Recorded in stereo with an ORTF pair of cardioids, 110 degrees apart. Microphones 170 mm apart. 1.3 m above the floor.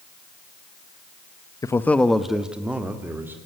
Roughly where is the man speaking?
Ahead.